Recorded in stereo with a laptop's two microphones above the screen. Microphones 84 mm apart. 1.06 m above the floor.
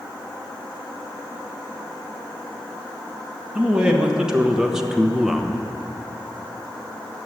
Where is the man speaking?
10° right (ahead or behind), 1.7 m; by 5.7 s centre (ahead or behind), 0.7 m.